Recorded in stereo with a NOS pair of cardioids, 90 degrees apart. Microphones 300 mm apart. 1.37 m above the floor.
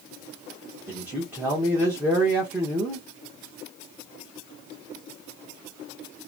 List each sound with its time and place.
0.9 s a man speaking: 5° right, 1.0 m